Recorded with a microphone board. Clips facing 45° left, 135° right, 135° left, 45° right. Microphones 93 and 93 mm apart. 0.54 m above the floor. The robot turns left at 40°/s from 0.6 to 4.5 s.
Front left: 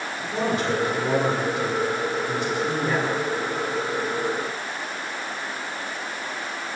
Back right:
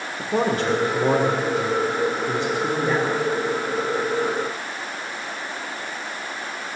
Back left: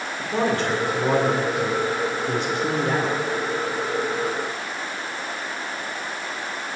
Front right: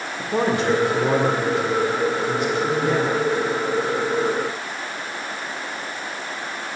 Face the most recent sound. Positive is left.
turn(degrees=90)